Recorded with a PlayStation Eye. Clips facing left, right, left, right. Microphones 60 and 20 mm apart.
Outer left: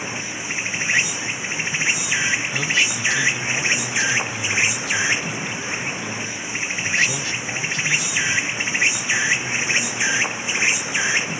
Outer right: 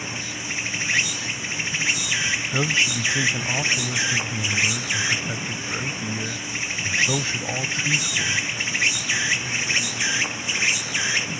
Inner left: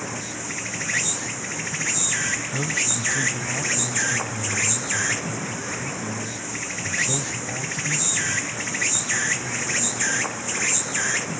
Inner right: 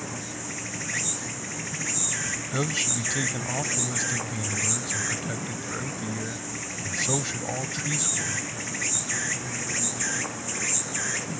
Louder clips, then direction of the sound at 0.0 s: Outer left 3 dB, inner left 4 dB; 20° left (ahead or behind).